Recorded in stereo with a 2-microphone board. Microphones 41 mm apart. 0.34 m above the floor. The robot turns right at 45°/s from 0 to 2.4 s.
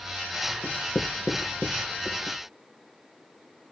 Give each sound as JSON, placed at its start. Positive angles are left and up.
{"t": 0.6, "sound": "writing", "side_deg": 85, "distance_m": 3.5}